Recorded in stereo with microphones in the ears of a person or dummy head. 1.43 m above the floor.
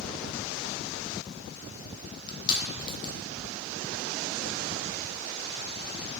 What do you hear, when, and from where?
2.3 s crushing: 25° left (ahead or behind), 0.7 m